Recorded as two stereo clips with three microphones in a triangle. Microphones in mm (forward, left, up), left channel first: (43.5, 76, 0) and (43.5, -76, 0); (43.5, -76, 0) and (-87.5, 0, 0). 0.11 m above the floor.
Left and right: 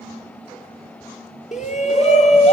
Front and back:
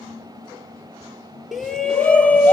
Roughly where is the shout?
Ahead left.